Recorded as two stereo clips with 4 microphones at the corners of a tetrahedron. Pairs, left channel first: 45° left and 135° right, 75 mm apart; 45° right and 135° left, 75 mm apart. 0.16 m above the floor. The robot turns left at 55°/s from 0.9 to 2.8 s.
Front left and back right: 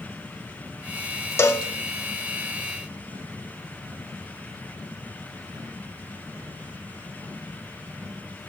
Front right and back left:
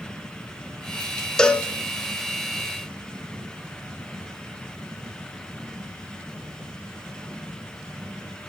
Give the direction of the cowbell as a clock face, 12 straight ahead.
11 o'clock.